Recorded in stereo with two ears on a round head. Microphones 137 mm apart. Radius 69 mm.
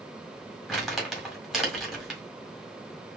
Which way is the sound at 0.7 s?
Centre (ahead or behind).